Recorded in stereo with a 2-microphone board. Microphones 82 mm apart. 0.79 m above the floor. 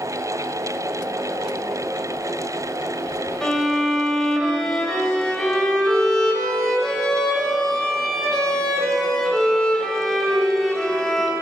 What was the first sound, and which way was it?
A violin, 10° left (ahead or behind).